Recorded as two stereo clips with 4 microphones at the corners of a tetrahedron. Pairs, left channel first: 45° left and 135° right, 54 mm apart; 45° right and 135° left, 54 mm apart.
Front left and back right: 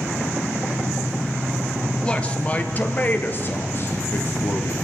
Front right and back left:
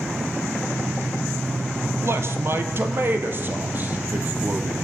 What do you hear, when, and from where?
2.0 s a man speaking: 110° left, 3 m; by 4.8 s 75° left, 3.5 m